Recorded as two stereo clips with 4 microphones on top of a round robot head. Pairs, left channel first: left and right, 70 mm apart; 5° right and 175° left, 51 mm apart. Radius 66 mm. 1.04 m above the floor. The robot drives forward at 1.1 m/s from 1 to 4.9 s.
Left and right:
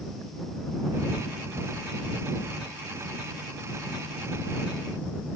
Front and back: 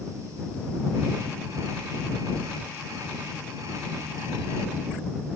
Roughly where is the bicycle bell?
No bicycle bell in this recording.